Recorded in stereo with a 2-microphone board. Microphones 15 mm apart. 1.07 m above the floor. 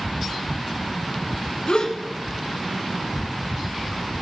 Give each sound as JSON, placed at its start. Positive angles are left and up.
{"t": 1.7, "sound": "a gasp", "side_deg": 75, "distance_m": 3.5}